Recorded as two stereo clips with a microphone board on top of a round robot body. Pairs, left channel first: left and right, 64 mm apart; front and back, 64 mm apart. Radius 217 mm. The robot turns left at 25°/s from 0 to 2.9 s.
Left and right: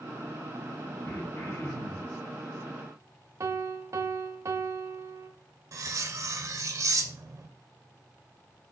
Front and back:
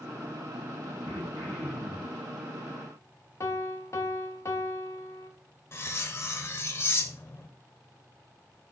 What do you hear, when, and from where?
1.0 s throat clearing: 160° left, 3.5 m; by 2.2 s 130° left, 3.5 m
3.4 s a piano: 45° right, 0.5 m
5.7 s cutlery clinking: 50° right, 0.6 m